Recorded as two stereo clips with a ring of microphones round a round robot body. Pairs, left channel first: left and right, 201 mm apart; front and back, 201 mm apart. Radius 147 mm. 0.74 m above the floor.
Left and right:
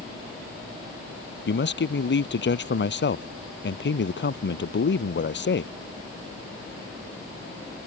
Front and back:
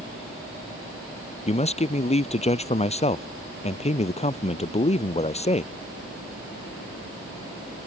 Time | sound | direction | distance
1.5 | a man speaking | 60° left | ?